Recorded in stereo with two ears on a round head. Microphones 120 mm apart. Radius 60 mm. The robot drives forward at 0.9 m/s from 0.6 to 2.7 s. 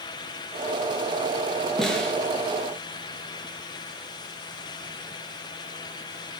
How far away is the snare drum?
About 6.5 m.